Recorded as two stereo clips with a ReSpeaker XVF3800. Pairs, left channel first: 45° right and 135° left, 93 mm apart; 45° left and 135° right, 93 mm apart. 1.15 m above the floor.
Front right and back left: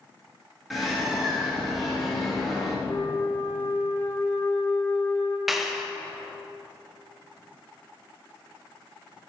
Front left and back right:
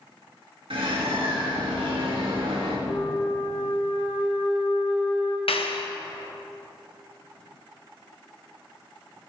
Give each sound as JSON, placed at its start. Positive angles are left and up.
{"t": 0.7, "sound": "a bird", "azimuth_deg": -135, "distance_m": 1.8}
{"t": 2.9, "sound": "a flute", "azimuth_deg": 20, "distance_m": 1.4}
{"t": 5.5, "sound": "a clap", "azimuth_deg": 50, "distance_m": 0.7}